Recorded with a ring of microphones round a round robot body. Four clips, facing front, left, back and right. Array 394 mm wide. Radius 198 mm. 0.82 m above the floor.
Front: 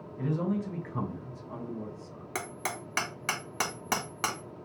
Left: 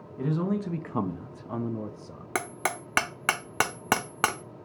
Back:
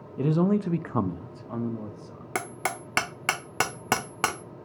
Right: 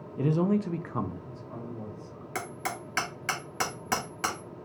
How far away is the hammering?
About 0.6 m.